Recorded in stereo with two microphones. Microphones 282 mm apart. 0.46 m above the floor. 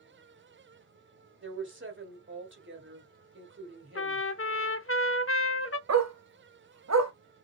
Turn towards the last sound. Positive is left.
turn(degrees=-65)  # may be behind; listen again after turning